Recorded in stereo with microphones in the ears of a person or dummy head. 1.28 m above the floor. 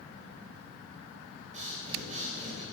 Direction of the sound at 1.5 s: 35° right (ahead or behind).